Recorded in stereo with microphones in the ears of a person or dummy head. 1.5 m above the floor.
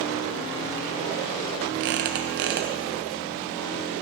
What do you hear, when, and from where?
1.8 s a squeak: 65° right (ahead or behind), 0.9 m